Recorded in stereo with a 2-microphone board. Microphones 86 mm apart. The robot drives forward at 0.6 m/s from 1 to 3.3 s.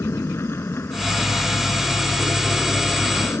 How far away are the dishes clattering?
No dishes clattering in this recording.